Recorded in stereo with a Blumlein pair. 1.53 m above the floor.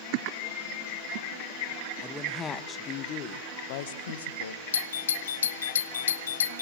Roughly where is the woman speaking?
Ahead.